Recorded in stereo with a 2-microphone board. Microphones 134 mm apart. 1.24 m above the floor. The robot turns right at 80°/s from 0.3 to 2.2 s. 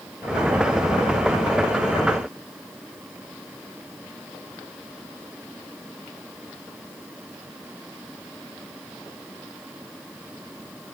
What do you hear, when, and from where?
Only background noise.